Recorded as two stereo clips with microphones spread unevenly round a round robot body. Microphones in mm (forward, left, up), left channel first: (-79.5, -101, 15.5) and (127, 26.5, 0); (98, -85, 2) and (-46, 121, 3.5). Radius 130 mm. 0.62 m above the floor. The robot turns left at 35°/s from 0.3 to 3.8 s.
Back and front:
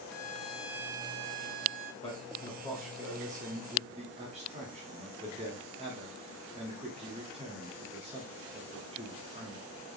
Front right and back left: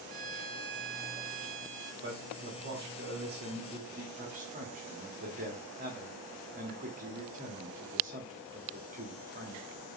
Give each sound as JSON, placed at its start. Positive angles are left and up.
{"t": 0.1, "sound": "a violin", "azimuth_deg": 130, "distance_m": 0.6}
{"t": 2.0, "sound": "a man speaking", "azimuth_deg": 145, "distance_m": 1.2}